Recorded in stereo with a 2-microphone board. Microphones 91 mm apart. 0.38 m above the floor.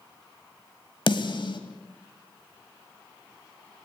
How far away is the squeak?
No squeak in this recording.